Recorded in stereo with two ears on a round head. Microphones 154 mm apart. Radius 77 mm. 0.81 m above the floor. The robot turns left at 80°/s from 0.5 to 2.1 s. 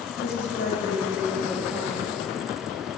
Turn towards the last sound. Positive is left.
turn(degrees=-35)